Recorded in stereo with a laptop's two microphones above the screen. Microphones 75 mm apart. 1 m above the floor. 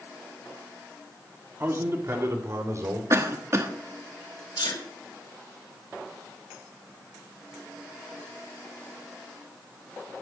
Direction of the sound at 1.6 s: 35° right (ahead or behind).